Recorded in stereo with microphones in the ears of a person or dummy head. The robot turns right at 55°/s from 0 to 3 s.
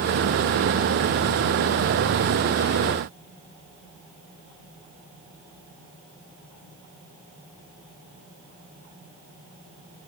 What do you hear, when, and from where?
Only background noise.